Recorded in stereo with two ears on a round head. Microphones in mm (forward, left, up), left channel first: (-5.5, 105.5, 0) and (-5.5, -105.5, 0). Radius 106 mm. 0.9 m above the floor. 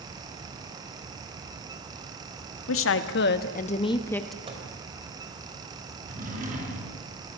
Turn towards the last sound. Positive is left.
turn(degrees=-35)  # may be behind; listen again after turning